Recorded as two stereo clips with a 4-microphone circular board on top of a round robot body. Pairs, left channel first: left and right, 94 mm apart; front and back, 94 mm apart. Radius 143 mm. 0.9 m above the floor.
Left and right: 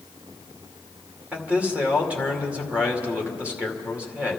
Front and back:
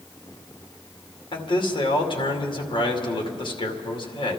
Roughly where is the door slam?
No door slam in this recording.